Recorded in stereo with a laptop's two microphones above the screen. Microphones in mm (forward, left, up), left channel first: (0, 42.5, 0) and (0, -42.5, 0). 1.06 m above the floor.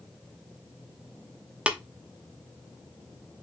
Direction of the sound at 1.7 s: 15° right (ahead or behind).